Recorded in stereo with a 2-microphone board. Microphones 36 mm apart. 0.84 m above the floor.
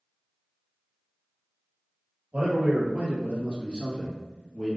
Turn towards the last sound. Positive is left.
turn(degrees=10)  # may be behind; listen again after turning